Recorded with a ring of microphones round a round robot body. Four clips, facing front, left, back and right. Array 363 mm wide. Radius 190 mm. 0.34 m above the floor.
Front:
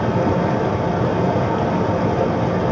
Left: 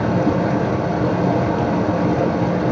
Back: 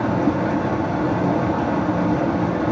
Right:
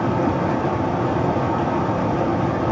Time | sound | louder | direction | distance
0.0 | running water | left 2 dB, front 1 dB | 50° left | 3.5 m